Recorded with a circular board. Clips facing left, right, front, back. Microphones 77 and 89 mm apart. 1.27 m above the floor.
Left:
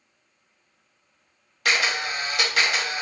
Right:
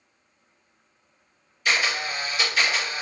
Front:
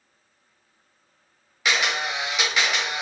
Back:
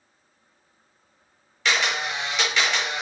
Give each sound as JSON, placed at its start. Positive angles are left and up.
{"t": 1.6, "sound": "a camera shutter", "azimuth_deg": 80, "distance_m": 1.3}